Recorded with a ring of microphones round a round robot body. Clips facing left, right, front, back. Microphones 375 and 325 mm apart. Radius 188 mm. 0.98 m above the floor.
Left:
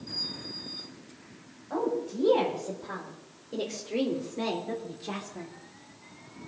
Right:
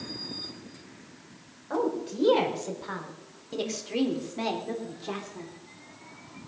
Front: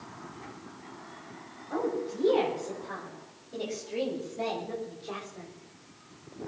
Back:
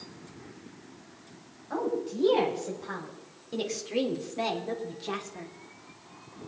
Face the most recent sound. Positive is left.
turn(degrees=170)